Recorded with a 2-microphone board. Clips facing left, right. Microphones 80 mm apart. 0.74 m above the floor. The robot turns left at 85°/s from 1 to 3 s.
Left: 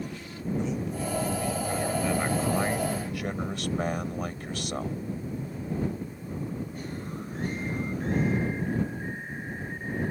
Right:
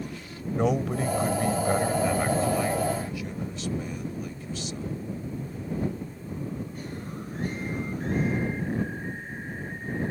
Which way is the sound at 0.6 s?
80° right.